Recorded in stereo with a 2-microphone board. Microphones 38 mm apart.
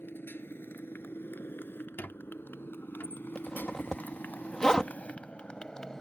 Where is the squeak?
65° left (ahead or behind).